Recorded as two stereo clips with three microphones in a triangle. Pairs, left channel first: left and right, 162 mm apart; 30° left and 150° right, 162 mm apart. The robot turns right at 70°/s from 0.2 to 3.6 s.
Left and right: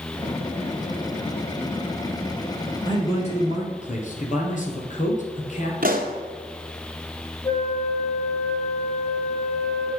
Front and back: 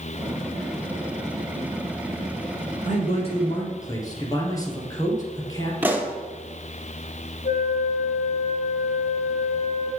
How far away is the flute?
About 3 m.